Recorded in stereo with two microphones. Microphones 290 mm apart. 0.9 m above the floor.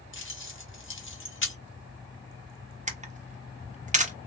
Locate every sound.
0.1 s keys jangling: 45° left (ahead or behind), 0.7 m
2.9 s a camera shutter: 25° right (ahead or behind), 0.6 m